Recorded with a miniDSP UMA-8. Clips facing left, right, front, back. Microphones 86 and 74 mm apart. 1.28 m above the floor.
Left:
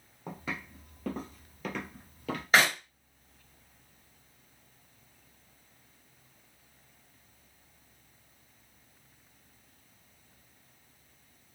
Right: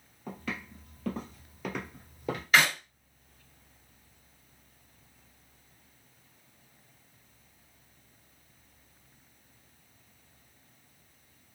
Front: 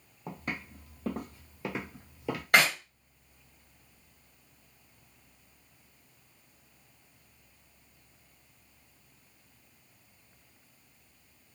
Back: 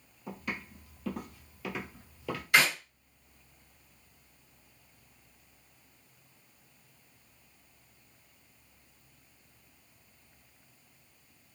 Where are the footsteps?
25° left, 1.8 m; by 2.4 s 60° right, 1.3 m.